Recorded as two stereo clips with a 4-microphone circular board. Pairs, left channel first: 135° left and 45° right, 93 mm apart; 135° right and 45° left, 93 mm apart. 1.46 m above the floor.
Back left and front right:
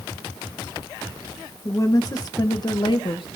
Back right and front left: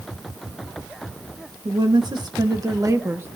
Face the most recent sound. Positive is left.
turn(degrees=110)